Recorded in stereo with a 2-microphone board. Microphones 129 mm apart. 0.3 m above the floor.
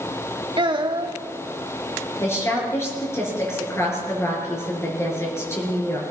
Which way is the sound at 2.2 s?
20° left (ahead or behind).